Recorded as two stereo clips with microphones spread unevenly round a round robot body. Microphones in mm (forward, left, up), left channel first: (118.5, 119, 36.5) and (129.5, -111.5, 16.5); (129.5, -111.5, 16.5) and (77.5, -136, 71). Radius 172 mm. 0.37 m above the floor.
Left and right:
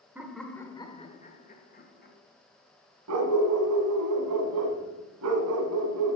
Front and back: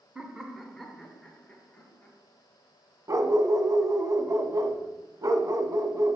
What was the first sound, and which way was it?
Laughter, 15° right.